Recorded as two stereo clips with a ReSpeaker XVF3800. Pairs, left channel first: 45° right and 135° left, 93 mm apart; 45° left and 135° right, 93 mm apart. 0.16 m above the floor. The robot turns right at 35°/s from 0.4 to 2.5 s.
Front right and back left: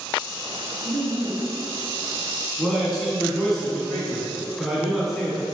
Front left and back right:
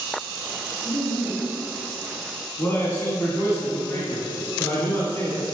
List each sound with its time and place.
0.8 s laughter: 105° left, 1.4 m; by 1.5 s 130° left, 1.4 m
2.6 s a man speaking: 45° left, 1.3 m